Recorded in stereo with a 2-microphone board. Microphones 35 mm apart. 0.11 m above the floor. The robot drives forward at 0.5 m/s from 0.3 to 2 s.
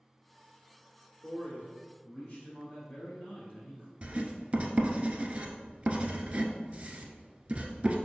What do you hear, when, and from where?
1.2 s a man speaking: 40° left (ahead or behind), 1.8 m
4.0 s writing: 35° right (ahead or behind), 0.6 m